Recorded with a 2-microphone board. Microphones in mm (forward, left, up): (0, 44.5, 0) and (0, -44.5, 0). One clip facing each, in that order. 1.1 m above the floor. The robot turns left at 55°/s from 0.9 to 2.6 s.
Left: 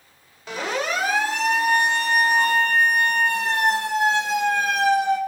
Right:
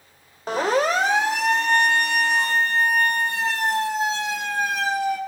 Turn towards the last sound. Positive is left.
turn(degrees=90)